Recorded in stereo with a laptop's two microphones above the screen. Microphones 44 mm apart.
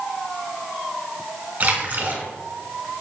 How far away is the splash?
About 1.3 m.